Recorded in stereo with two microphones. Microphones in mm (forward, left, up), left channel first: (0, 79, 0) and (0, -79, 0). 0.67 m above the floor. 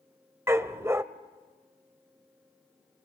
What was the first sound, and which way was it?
A dog barking, 15° right (ahead or behind).